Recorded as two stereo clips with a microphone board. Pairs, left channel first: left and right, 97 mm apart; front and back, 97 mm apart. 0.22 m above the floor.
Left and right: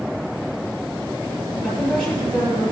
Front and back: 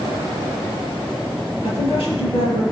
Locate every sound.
1.6 s a woman speaking: 5° left, 5 m